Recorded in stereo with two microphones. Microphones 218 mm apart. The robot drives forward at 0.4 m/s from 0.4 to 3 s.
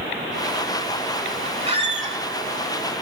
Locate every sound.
1.7 s a squeak: 25° right (ahead or behind), 0.7 m; by 2.2 s 35° right (ahead or behind), 0.6 m